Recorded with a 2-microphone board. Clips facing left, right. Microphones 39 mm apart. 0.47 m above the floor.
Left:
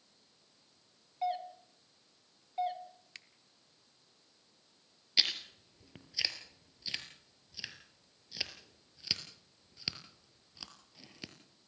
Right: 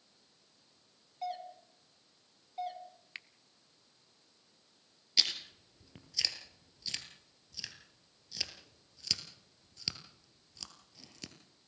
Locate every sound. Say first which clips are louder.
1.2 s a doorbell: left 5 dB; 20° left (ahead or behind), 1.5 m
3.1 s a finger snap: right 7 dB; 30° right (ahead or behind), 0.6 m
5.2 s chewing: left 1 dB; 15° left (ahead or behind), 2 m